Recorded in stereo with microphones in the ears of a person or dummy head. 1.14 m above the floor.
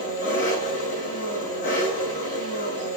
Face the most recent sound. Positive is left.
turn(degrees=40)  # may be behind; listen again after turning